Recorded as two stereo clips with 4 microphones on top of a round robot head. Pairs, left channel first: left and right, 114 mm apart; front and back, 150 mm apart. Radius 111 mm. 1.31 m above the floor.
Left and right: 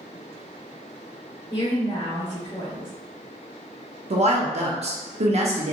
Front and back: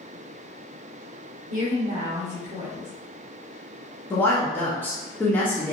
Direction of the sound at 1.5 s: 165° left.